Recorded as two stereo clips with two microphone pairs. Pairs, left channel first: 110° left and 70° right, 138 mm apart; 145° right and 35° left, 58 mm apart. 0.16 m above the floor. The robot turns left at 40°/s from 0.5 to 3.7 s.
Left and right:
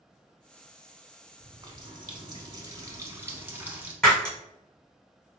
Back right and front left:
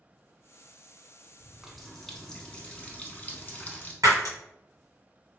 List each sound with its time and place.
1.4 s a running tap: 50° right, 0.8 m; by 3.9 s 140° right, 0.8 m
4.0 s breaking glass: 25° left, 1.4 m